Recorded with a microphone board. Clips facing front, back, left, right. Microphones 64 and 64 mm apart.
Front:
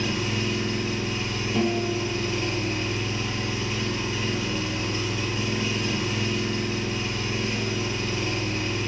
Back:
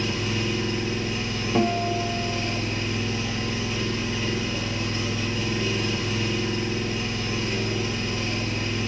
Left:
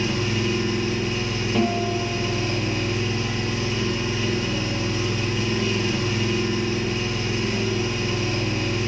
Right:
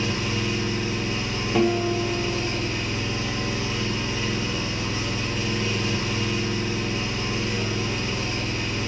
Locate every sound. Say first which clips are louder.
0.0 s an engine running: even, left 2 dB; 75° left, 1.9 m
1.6 s a guitar: back 2 dB, right 2 dB; 170° right, 0.6 m